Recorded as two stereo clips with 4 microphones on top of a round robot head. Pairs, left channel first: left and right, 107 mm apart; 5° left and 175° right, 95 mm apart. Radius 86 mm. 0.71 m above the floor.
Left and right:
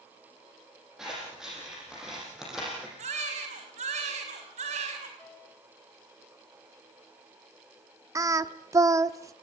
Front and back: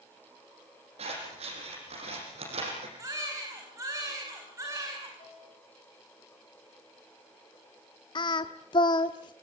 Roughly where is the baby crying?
Right.